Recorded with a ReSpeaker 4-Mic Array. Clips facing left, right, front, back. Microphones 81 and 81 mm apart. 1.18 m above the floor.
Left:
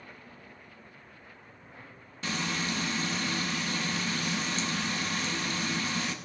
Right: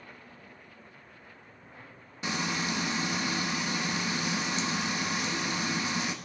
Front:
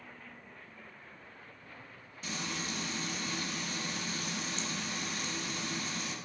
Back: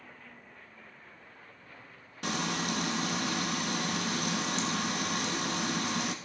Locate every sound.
2.2 s frying: 160° right, 0.9 m